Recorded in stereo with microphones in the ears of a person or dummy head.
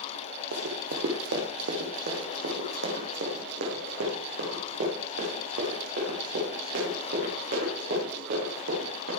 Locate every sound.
0.5 s running footsteps: 50° right (ahead or behind), 2.5 m; by 9.1 s 55° right (ahead or behind), 10 m